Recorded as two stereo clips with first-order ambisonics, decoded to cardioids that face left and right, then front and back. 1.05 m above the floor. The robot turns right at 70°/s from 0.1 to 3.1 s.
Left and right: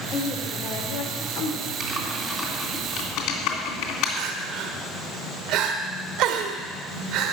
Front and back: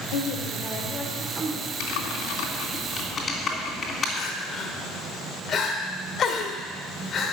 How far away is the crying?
About 1.5 m.